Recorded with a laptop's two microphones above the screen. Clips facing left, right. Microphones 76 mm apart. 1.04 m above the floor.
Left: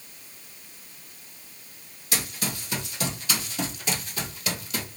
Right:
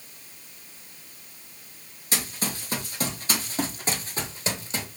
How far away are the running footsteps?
About 1.8 m.